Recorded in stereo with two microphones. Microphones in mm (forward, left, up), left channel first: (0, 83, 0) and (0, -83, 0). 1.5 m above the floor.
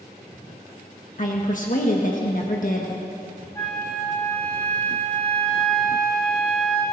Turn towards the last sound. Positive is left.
turn(degrees=20)  # may be behind; listen again after turning